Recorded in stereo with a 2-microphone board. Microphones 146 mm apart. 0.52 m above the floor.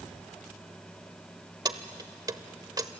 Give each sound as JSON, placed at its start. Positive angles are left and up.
{"t": 1.6, "sound": "keys jangling", "side_deg": -25, "distance_m": 1.0}